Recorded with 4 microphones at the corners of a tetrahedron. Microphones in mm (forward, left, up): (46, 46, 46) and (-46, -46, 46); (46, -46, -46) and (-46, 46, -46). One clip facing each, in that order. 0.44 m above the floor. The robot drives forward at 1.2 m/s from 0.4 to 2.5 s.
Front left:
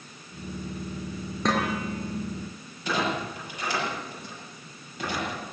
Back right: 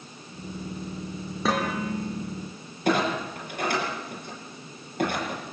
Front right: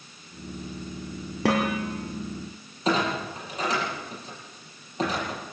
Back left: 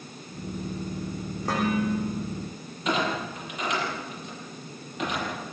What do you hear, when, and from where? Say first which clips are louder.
1.4 s dishes clattering: even, front right 1 dB; 50° right, 5.5 m; by 2.1 s 55° right, 5 m
2.9 s a clunk: back right 4 dB, front right 2 dB; 100° right, 8 m